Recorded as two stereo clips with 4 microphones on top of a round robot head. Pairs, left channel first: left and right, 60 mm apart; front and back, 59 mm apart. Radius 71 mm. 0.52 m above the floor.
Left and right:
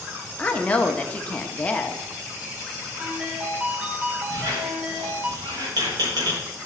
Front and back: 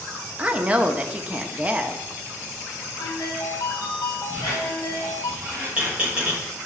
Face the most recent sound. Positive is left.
turn(degrees=-105)